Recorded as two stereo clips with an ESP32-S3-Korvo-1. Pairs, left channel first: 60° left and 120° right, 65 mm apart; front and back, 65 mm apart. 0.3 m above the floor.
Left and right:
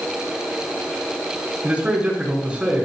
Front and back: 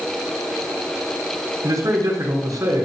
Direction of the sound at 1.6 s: 170° left.